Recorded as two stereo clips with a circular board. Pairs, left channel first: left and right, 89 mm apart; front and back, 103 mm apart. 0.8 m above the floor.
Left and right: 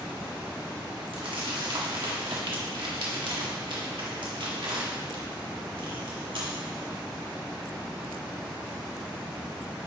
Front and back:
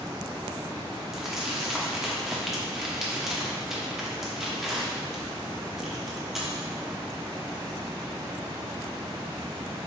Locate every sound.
1.1 s crumpling: 95° right, 1.5 m